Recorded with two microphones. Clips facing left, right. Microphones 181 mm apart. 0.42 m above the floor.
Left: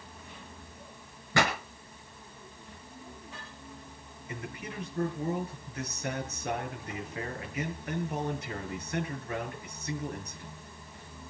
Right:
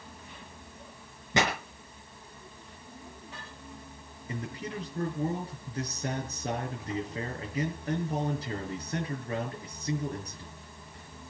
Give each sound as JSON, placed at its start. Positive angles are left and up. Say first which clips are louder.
{"t": 1.3, "sound": "a pop", "louder": "even", "side_deg": -20, "distance_m": 4.5}
{"t": 4.3, "sound": "a man speaking", "louder": "right 4 dB", "side_deg": -30, "distance_m": 6.5}